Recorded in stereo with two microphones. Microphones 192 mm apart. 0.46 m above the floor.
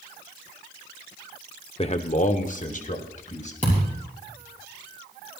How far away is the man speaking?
About 0.8 m.